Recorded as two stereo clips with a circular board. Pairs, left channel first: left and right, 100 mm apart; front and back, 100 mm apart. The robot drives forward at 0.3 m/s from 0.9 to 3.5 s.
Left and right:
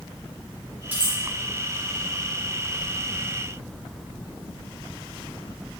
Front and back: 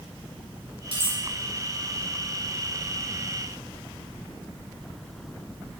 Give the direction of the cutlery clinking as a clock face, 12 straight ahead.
5 o'clock.